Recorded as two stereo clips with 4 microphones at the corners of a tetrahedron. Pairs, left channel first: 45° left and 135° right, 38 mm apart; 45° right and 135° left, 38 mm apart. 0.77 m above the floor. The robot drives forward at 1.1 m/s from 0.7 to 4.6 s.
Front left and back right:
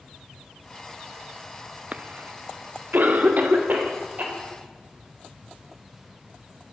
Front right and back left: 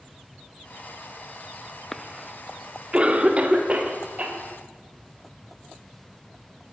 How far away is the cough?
About 0.6 m.